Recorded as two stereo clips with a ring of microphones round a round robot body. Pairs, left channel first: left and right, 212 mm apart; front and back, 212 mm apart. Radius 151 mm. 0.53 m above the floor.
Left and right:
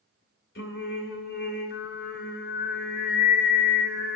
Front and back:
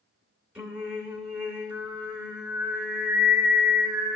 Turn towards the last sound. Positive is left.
turn(degrees=100)